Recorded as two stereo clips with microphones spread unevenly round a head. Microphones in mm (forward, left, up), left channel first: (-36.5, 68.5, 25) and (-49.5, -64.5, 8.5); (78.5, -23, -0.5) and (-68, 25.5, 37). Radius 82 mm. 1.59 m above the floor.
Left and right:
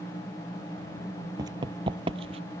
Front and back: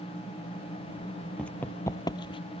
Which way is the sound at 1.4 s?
130° right.